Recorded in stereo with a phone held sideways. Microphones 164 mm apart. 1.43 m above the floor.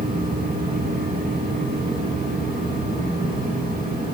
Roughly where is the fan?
Right.